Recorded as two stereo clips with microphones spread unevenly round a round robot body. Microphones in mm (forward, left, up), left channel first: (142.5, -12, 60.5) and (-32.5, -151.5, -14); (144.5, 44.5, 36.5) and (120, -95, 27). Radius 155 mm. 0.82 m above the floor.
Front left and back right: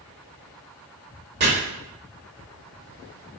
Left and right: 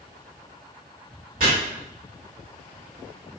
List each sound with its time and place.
1.4 s chopping: 105° right, 1.4 m